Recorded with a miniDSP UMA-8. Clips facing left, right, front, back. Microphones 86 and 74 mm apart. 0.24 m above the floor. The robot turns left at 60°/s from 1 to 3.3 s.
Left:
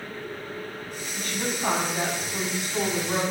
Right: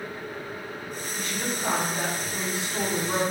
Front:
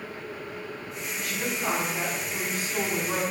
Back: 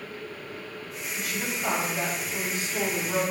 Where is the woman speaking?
105° left, 1.4 m; by 3.2 s 20° right, 1.4 m.